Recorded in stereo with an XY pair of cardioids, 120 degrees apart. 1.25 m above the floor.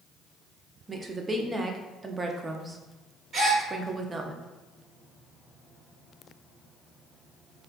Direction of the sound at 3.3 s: 40° right.